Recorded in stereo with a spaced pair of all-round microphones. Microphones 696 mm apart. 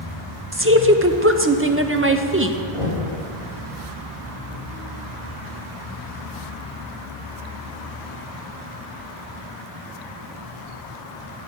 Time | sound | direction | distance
0.5 | a woman speaking | 20° right (ahead or behind) | 0.8 m
2.7 | knocking | 45° right (ahead or behind) | 3.5 m